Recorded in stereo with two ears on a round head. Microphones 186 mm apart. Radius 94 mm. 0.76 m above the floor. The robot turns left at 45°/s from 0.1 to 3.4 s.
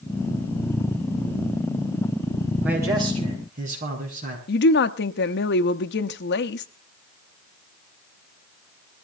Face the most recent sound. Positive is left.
turn(degrees=55)  # may be behind; listen again after turning